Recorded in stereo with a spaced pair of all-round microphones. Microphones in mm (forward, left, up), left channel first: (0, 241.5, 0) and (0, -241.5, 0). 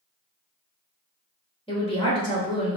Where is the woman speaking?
10° left (ahead or behind), 1.4 m.